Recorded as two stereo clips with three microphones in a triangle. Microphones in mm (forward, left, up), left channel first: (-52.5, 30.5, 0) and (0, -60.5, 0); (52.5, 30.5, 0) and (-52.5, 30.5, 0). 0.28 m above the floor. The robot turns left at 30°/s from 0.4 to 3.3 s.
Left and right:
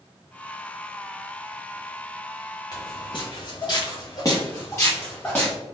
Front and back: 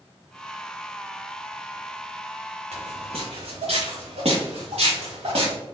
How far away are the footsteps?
About 1.8 m.